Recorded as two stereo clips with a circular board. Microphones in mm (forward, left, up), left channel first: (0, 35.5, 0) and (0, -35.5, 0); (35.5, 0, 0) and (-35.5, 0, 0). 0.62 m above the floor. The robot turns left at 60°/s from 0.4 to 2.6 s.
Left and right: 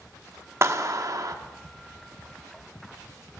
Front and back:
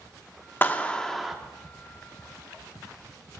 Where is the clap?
55° right, 0.9 m; by 1.4 s 100° right, 0.9 m.